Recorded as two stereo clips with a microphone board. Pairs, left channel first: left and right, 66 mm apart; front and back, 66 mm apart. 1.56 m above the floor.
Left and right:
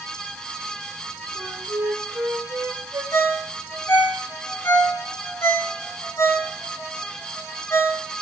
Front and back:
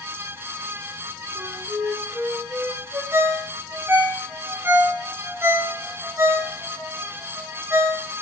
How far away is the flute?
About 3 m.